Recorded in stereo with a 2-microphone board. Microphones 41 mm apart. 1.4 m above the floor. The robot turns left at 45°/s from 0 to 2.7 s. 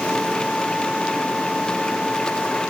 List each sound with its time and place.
Only background noise.